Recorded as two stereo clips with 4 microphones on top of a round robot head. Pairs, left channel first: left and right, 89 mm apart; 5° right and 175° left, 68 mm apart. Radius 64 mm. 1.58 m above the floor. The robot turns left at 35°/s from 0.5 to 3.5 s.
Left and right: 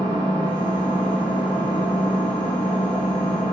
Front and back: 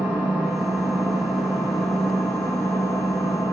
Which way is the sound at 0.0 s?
110° left.